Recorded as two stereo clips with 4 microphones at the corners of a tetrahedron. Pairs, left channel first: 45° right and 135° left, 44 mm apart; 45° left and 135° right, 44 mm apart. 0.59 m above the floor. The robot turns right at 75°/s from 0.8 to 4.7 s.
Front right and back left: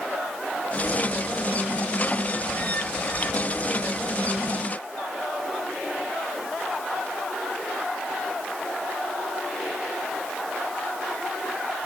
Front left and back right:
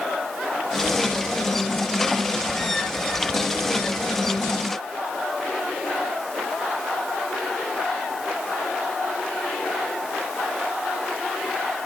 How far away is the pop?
I don't hear a pop.